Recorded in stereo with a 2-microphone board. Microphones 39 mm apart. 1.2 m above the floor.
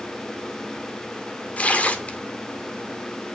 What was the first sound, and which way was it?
Tearing paper, 40° left (ahead or behind).